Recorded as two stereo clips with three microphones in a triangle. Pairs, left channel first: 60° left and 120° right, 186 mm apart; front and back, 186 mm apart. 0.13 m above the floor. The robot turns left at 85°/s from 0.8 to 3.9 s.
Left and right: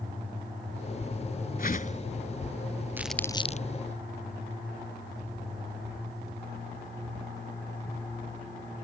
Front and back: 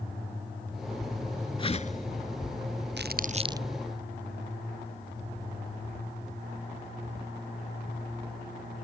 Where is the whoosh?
55° left; by 2.1 s 15° left.